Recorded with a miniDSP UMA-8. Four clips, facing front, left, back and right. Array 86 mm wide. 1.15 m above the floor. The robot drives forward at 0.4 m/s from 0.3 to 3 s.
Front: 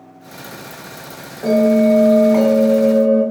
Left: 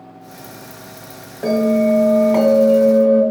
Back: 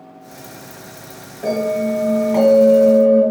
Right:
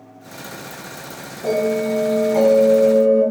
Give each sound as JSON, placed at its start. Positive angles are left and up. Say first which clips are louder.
{"t": 1.4, "sound": "a bell", "louder": "left 4 dB, front 6 dB", "azimuth_deg": 75, "distance_m": 1.5}